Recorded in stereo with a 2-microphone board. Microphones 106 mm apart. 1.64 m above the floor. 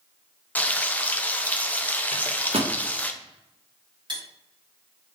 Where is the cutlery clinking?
50° right (ahead or behind), 1.5 m.